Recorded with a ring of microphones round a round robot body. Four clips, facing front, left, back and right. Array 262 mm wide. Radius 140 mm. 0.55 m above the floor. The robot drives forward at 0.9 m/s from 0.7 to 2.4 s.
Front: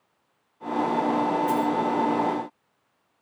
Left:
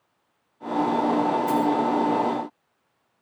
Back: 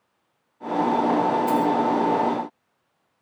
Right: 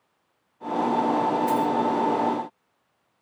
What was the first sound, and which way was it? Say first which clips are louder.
A dropped coin: left 1 dB, back 3 dB; 155° right.